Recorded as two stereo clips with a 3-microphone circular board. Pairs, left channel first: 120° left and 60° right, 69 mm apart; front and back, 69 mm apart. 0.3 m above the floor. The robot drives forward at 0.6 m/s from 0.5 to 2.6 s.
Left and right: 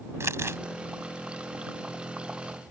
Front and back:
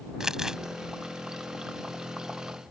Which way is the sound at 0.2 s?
100° right.